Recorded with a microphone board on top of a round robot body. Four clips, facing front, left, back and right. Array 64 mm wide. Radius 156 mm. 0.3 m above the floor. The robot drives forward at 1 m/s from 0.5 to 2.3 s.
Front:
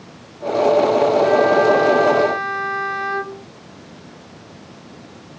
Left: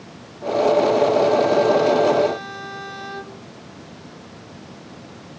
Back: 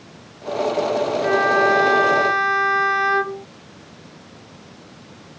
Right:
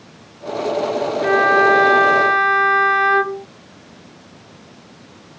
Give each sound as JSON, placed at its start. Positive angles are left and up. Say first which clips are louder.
{"t": 1.2, "sound": "a violin", "louder": "right 3 dB, even", "azimuth_deg": -100}